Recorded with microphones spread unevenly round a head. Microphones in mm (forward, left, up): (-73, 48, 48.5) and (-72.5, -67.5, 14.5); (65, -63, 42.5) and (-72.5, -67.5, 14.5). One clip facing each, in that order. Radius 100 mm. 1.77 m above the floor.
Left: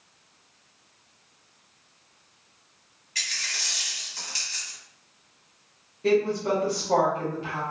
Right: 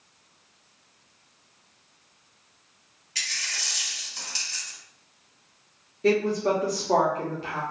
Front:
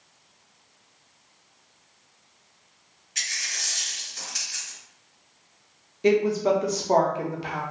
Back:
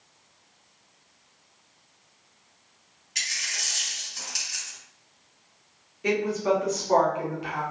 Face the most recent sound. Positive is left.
turn(degrees=-20)